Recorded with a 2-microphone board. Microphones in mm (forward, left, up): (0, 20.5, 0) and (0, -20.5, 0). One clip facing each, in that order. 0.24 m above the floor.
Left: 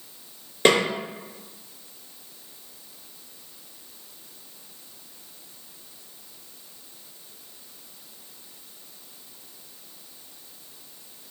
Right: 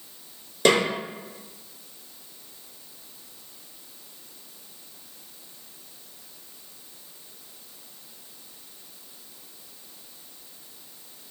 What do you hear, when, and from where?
0.7 s a snare drum: 35° left (ahead or behind), 1.3 m